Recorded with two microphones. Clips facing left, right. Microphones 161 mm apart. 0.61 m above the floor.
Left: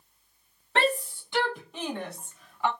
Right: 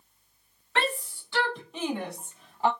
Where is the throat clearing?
I don't hear throat clearing.